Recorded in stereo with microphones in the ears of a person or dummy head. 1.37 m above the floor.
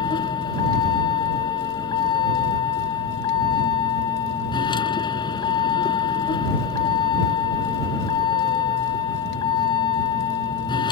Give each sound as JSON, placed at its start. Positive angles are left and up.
{"t": 0.0, "sound": "a vehicle", "side_deg": 20}